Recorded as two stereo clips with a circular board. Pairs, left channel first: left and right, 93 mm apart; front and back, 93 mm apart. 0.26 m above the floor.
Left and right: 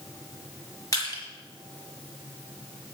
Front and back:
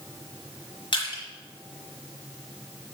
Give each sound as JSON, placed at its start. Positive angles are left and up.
{"t": 0.9, "sound": "crushing", "azimuth_deg": 35, "distance_m": 6.0}